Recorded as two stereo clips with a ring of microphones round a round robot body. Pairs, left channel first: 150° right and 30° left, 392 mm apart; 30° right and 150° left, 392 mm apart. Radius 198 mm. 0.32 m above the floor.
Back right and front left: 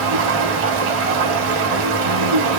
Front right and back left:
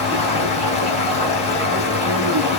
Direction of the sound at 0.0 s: 45° left.